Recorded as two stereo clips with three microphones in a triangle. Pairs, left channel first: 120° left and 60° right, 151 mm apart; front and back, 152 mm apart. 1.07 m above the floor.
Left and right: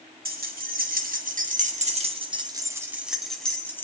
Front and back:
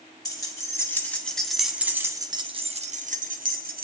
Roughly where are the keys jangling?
Ahead right.